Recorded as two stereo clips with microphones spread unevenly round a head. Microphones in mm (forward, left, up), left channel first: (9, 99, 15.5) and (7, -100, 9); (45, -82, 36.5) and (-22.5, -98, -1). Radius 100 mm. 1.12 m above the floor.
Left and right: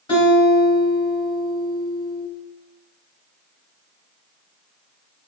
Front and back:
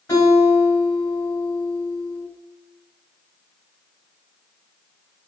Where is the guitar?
25° left, 1.6 m.